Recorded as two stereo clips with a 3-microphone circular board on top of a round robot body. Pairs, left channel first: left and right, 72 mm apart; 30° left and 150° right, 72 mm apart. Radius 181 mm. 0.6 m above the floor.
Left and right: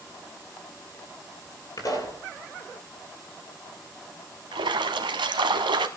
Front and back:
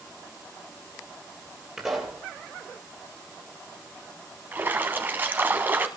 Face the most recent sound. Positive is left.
turn(degrees=-85)